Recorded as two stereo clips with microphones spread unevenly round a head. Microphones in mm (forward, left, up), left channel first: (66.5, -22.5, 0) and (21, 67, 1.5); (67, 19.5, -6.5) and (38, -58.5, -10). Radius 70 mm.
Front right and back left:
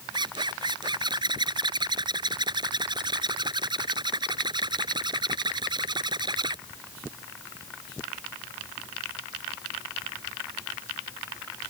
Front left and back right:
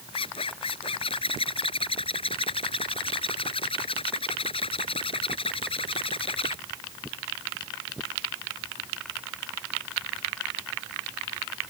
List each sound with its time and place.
0.1 s a zipper: 75° left